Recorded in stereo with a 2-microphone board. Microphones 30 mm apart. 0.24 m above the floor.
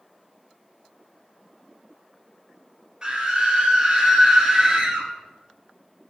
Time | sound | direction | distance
3.0 | a scream | 25° right (ahead or behind) | 3 m